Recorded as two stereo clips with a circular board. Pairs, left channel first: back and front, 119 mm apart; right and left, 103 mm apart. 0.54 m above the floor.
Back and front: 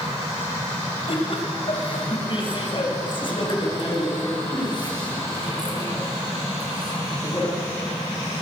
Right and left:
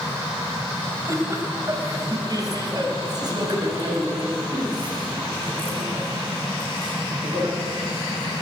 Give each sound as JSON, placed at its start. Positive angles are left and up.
{"t": 1.1, "sound": "laughter", "azimuth_deg": 150, "distance_m": 3.0}